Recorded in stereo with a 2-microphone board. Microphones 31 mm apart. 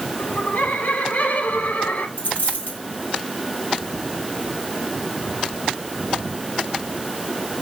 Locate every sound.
0.2 s laughter: 75° left (ahead or behind), 7 m; by 2.1 s 65° left (ahead or behind), 7 m
2.2 s a dropped coin: 90° left, 6 m